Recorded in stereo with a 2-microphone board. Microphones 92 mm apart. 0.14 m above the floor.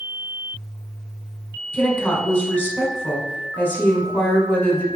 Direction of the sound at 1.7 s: 20° left (ahead or behind).